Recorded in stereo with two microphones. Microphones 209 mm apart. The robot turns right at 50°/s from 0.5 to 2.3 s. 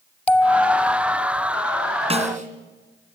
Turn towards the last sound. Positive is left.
turn(degrees=-40)  # may be behind; listen again after turning